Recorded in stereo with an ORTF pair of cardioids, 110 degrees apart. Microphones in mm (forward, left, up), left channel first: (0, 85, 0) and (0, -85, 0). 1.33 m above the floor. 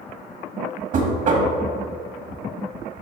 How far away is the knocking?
About 1.6 m.